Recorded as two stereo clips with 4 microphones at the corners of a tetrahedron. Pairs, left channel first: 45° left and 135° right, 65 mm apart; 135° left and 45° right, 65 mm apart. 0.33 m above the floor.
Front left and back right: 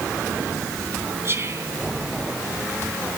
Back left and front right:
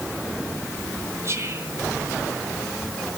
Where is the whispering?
85° right, 3 m.